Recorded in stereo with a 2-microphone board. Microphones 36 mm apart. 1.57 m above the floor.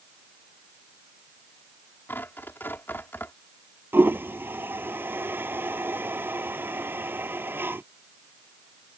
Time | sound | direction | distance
2.1 | tearing paper | 75° left (ahead or behind) | ?
3.9 | a toilet flushing | 75° right (ahead or behind) | ?